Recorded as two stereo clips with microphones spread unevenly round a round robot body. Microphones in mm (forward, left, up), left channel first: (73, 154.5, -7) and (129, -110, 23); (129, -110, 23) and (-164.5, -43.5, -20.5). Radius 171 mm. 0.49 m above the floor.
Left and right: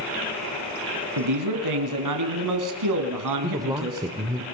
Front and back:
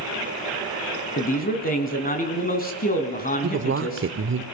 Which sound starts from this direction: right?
A man speaking, at 1.2 s.